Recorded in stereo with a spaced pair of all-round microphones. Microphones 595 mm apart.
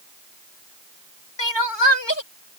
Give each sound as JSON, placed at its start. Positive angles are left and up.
{"t": 1.4, "sound": "crying", "side_deg": 45}